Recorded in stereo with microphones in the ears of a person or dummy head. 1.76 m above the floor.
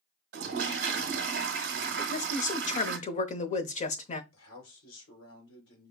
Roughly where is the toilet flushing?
Right.